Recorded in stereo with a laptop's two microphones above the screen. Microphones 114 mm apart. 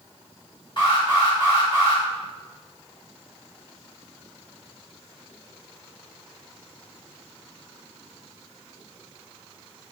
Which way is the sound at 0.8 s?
45° left (ahead or behind).